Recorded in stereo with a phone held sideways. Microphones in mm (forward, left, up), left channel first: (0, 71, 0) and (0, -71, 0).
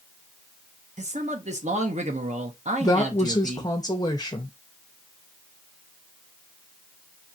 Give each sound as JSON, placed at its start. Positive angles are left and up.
{"t": 1.0, "sound": "a man speaking", "side_deg": -55, "distance_m": 1.1}
{"t": 2.8, "sound": "a woman speaking", "side_deg": 25, "distance_m": 0.8}